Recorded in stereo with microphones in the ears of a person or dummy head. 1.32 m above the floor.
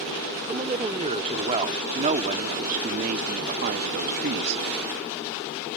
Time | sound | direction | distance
0.5 | a woman speaking | 25° right (ahead or behind) | ?